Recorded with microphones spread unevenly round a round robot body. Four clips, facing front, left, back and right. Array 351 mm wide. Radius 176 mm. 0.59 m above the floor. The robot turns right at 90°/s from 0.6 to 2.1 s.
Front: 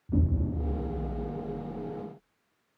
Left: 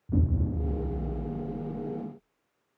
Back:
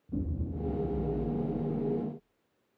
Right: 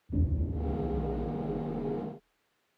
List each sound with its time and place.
0.1 s an explosion: 60° left, 0.6 m; by 2.0 s 170° right, 0.6 m